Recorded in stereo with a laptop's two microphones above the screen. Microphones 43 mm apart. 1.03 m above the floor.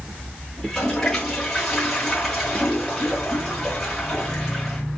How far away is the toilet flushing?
About 1.6 m.